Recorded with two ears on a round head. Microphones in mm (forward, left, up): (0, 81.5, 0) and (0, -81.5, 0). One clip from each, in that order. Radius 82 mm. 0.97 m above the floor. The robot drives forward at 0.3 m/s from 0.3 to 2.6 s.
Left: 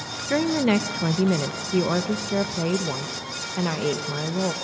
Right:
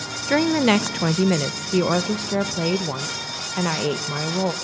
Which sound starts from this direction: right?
A woman speaking, at 0.3 s.